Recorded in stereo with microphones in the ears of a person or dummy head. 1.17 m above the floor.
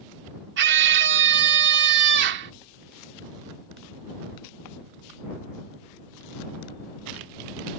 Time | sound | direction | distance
0.6 | a scream | 65° right (ahead or behind) | ?